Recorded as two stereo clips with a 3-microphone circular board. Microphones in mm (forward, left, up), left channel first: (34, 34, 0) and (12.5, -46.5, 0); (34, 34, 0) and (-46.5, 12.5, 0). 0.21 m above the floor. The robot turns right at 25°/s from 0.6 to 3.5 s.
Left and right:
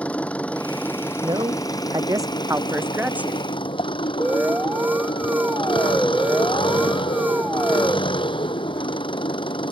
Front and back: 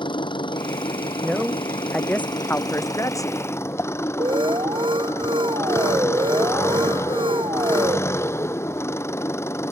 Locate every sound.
0.0 s an engine running: straight ahead; by 9.7 s 75° left
1.2 s a man speaking: 80° right; by 3.4 s 25° right
4.2 s an alarm: 175° right